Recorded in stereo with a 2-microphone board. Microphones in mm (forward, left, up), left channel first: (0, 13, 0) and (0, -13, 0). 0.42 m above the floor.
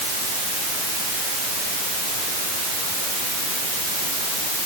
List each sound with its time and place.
Only background noise.